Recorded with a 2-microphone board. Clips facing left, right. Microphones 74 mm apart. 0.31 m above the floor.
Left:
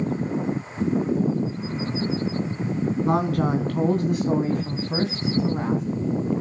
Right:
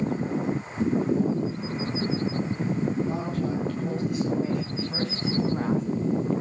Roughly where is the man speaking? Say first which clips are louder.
Left 6 dB; left.